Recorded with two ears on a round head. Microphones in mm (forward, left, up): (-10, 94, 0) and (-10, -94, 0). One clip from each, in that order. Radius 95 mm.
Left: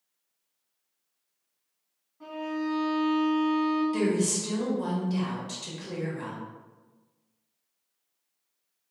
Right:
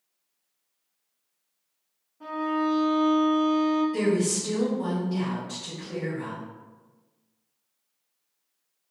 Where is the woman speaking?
50° left (ahead or behind), 1.3 m.